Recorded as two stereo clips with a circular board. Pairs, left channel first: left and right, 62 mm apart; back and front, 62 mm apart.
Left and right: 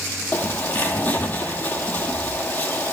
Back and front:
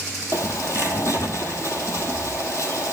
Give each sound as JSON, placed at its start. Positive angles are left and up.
{"t": 0.3, "sound": "a bird", "azimuth_deg": 150, "distance_m": 1.0}